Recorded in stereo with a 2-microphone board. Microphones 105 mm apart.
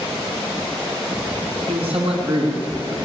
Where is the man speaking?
70° right (ahead or behind), 3.5 m.